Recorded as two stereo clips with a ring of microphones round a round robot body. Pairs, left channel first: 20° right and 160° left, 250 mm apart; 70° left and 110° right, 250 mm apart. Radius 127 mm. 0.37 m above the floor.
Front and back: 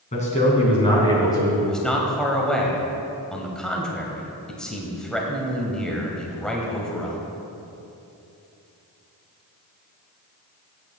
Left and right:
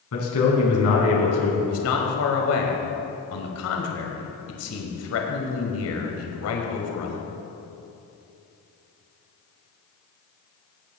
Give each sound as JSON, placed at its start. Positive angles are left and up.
{"t": 0.1, "sound": "a man speaking", "azimuth_deg": 40, "distance_m": 4.0}
{"t": 1.6, "sound": "a man speaking", "azimuth_deg": 65, "distance_m": 1.6}